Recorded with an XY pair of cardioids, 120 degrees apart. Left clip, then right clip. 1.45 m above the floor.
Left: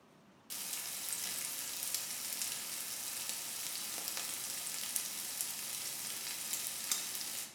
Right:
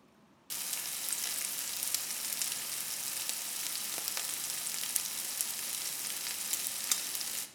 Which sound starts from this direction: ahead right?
Frying, at 0.5 s.